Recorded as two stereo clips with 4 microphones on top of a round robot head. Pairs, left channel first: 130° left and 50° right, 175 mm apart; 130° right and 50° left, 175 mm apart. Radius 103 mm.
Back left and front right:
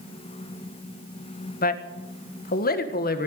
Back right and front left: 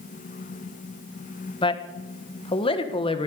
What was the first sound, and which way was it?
A man speaking, 165° left.